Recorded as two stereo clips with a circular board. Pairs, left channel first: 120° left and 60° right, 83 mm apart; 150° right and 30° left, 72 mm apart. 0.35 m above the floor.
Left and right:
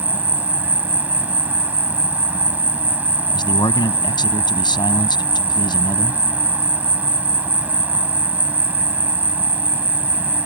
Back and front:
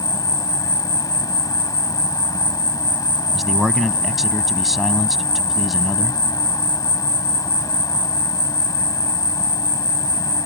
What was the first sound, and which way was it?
An insect, 130° right.